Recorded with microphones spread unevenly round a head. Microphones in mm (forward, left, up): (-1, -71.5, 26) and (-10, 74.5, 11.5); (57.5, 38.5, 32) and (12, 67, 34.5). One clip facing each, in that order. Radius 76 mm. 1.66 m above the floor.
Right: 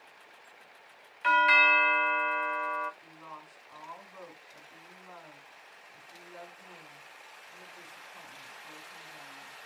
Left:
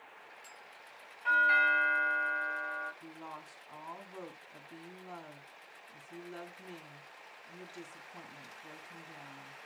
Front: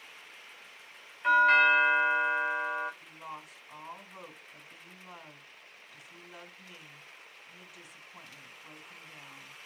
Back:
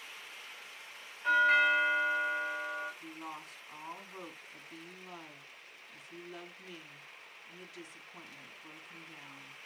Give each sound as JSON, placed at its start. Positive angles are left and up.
{"t": 1.2, "sound": "a doorbell", "azimuth_deg": -95, "distance_m": 1.0}
{"t": 3.0, "sound": "a woman speaking", "azimuth_deg": 55, "distance_m": 3.5}